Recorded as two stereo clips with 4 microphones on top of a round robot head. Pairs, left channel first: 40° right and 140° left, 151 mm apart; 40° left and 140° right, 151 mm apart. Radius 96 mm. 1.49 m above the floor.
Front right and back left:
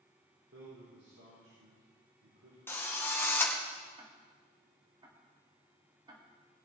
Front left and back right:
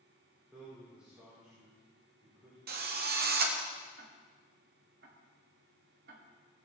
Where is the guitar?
No guitar in this recording.